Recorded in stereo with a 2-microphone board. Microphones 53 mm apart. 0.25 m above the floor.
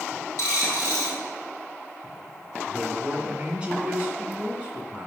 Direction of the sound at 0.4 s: 70° left (ahead or behind).